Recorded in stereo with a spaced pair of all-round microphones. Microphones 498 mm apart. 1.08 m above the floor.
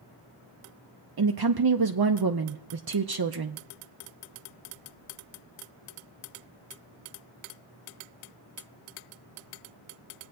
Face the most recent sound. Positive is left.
turn(degrees=-50)  # may be behind; listen again after turning